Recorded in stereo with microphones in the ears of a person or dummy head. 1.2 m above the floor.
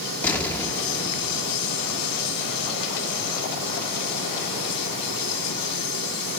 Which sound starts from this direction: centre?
An explosion, at 0.2 s.